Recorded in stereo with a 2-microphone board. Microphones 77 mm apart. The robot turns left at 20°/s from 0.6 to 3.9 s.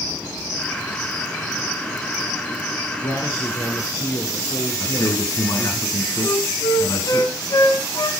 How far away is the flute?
About 1.7 m.